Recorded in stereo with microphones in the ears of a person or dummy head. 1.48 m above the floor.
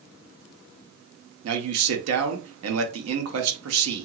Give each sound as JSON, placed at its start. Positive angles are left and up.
{"t": 1.4, "sound": "a man speaking", "side_deg": -80, "distance_m": 1.0}